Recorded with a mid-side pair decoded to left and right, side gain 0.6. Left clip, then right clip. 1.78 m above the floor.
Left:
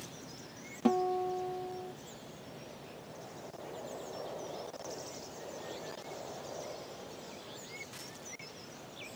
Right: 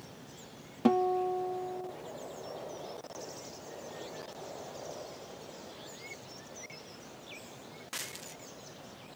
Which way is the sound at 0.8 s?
20° right.